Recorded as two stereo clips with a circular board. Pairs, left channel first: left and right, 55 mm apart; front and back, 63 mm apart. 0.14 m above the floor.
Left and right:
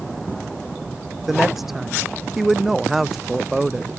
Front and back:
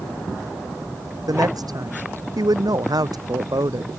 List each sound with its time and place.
1.3 s a woman speaking: straight behind